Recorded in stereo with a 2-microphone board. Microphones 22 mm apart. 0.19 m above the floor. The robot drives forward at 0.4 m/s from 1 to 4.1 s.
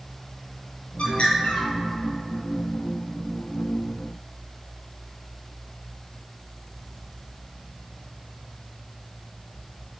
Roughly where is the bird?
Left.